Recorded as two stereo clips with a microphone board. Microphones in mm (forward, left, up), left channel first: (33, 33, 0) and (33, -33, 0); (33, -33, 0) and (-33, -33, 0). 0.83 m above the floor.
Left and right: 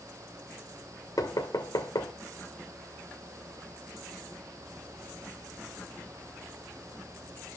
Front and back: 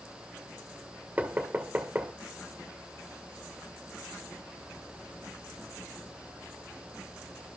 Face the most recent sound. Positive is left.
turn(degrees=115)